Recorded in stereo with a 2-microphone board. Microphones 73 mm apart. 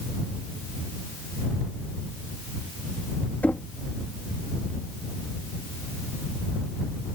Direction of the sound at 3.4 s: 20° left (ahead or behind).